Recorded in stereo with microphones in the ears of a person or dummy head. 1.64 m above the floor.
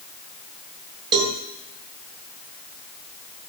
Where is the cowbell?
25° right (ahead or behind), 1.9 m.